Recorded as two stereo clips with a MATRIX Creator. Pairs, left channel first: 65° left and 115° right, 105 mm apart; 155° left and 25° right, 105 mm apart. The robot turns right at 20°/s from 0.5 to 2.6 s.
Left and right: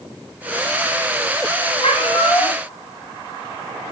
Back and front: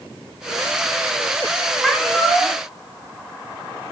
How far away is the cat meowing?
About 1.9 m.